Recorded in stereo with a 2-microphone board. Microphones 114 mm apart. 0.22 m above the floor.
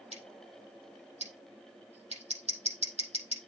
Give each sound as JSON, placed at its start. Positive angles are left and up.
{"t": 0.1, "sound": "scissors", "side_deg": -80, "distance_m": 5.5}